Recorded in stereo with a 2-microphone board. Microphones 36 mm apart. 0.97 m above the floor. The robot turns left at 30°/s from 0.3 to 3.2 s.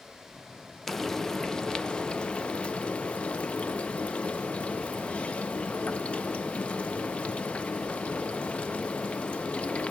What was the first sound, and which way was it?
Frying, 170° left.